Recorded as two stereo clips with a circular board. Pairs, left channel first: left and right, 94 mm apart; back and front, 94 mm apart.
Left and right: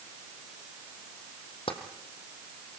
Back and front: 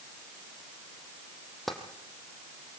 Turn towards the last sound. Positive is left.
turn(degrees=90)